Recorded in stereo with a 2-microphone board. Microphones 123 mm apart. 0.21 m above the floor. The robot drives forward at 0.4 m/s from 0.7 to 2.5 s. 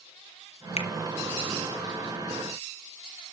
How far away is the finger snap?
About 1.5 m.